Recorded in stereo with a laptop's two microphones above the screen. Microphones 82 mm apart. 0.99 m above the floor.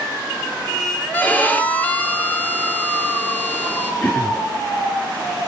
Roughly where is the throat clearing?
Left.